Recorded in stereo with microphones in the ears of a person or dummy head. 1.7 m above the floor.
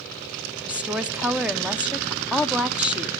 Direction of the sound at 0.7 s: 5° right (ahead or behind).